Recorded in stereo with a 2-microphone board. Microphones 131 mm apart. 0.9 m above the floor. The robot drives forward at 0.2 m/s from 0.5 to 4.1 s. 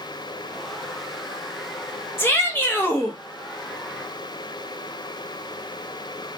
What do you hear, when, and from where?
2.2 s a shout: 15° left (ahead or behind), 0.7 m